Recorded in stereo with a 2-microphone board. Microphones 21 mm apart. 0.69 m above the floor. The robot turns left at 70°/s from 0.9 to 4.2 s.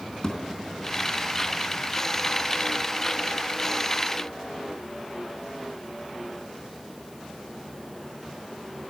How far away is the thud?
About 3.5 m.